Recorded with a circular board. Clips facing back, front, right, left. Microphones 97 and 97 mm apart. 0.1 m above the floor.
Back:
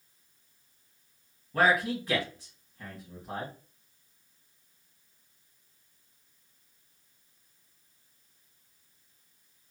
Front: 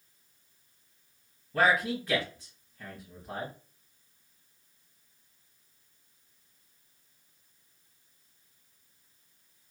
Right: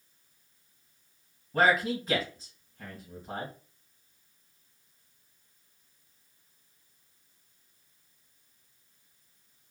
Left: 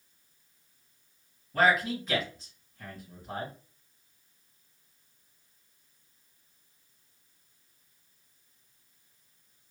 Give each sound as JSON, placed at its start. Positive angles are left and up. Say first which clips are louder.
{"t": 1.5, "sound": "a man speaking", "louder": "back 1 dB, even", "azimuth_deg": -115, "distance_m": 2.0}